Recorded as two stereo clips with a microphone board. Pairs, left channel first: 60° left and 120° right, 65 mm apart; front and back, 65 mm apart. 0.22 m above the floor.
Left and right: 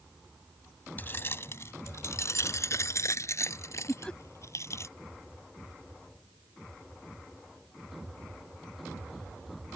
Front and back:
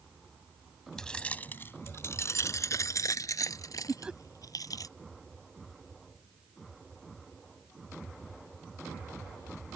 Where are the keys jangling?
75° left; by 4.9 s 20° left.